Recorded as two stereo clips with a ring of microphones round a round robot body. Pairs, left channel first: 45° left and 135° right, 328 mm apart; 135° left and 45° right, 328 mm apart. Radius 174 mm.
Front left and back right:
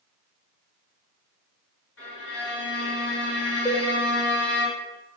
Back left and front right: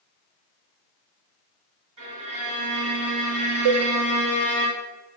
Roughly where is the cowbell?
Ahead right.